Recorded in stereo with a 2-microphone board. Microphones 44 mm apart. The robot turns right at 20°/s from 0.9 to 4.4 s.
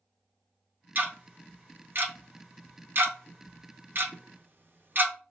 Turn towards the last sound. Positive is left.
turn(degrees=-50)  # may be behind; listen again after turning